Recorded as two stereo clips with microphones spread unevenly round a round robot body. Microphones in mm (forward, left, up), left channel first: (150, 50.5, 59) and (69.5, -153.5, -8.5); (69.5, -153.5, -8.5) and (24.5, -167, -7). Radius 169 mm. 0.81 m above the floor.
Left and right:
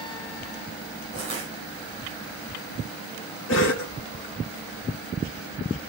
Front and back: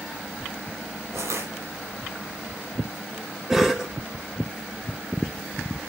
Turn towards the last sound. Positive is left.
turn(degrees=115)